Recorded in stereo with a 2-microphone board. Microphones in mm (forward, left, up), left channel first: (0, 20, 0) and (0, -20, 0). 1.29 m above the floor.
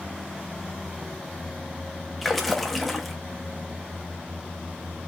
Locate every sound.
2.2 s a splash: centre (ahead or behind), 0.6 m